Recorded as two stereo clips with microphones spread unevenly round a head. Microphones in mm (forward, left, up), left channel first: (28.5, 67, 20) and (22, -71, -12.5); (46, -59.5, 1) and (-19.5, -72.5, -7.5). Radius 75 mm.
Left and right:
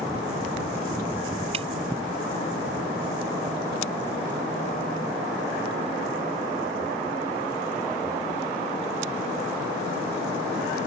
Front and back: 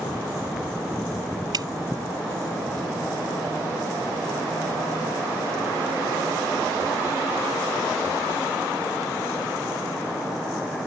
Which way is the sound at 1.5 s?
150° right.